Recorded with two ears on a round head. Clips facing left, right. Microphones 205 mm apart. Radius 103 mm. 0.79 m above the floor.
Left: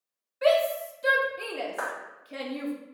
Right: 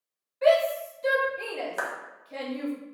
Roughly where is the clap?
Right.